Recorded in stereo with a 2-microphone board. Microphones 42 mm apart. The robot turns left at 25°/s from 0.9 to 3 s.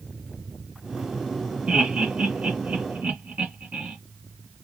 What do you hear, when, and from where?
1.7 s laughter: 25° right (ahead or behind), 1.6 m; by 4.0 s 35° right (ahead or behind), 1.6 m